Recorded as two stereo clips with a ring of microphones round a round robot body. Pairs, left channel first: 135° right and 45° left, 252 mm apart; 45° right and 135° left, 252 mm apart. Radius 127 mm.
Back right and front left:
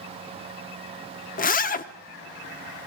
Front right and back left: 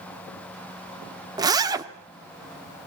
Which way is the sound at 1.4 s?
160° right.